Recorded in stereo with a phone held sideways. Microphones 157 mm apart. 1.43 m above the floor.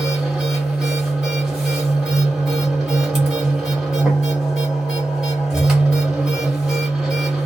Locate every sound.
0.0 s a machine running: 5° right (ahead or behind), 1.3 m